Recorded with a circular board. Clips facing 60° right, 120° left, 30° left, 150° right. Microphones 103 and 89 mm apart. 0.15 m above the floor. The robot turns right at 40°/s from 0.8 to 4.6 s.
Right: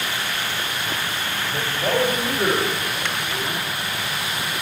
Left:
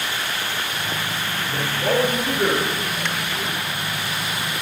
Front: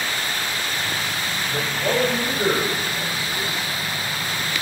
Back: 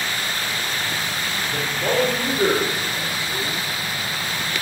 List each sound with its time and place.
1.5 s a man speaking: 155° left, 3 m; by 3.6 s 120° right, 3 m